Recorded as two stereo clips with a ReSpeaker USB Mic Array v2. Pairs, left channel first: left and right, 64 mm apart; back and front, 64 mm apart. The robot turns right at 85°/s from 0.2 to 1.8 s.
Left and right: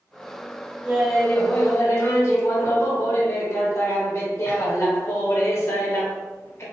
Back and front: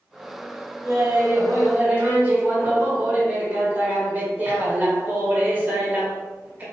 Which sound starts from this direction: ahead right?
Laughter, at 0.8 s.